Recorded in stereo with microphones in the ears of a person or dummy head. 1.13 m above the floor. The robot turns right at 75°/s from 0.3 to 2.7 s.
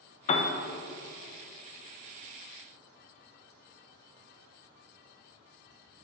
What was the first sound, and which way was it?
A piano, 35° left (ahead or behind).